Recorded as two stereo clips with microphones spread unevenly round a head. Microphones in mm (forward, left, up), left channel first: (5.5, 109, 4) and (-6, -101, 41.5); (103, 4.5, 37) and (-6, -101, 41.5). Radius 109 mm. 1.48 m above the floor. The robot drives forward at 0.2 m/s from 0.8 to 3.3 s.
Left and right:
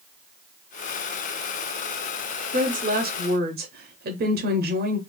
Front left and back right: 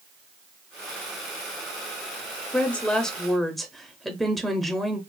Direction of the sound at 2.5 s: 35° right.